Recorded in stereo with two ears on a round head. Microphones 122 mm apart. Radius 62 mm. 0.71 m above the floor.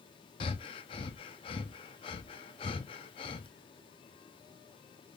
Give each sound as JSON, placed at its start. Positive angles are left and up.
{"t": 0.4, "sound": "breathing", "side_deg": 35, "distance_m": 0.7}